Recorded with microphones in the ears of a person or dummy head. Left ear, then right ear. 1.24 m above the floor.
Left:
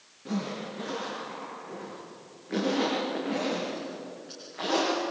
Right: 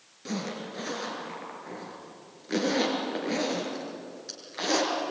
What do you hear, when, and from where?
0.2 s a zipper: 80° right, 6 m